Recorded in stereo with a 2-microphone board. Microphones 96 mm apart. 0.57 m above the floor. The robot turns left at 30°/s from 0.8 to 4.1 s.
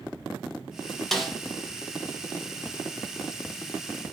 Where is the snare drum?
5° left (ahead or behind), 0.6 m; by 1.4 s 5° right (ahead or behind), 0.6 m.